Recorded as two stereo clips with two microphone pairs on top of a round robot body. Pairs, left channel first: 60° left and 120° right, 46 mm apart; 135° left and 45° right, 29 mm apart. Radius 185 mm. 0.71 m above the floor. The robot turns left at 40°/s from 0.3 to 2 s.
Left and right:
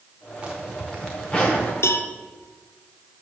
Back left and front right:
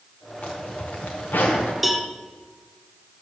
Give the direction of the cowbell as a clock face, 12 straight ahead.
11 o'clock.